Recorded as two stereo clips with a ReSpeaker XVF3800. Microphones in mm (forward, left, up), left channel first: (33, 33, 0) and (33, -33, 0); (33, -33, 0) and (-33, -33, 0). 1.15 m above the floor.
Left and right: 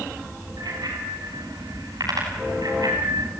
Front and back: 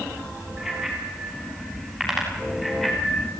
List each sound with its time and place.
0.6 s a bicycle bell: 100° right, 7.5 m; by 3.3 s 85° right, 5.5 m